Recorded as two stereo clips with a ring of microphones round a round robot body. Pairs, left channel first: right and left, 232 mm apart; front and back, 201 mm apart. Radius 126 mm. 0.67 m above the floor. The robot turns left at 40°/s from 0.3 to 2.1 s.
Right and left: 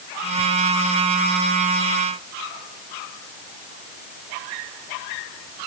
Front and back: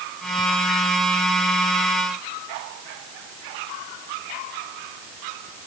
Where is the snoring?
No snoring in this recording.